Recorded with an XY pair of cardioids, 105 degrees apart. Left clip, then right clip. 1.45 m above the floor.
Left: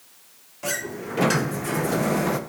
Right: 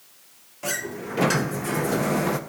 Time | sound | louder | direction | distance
0.6 | a sliding door | even | 5° right | 0.8 m